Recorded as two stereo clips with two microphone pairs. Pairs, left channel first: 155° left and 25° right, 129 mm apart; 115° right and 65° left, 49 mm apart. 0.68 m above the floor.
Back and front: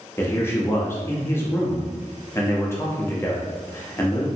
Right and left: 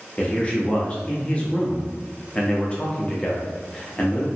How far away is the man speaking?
About 0.5 m.